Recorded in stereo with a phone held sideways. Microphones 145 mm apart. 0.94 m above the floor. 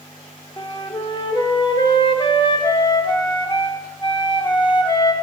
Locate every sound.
0.6 s a flute: 30° left (ahead or behind), 0.8 m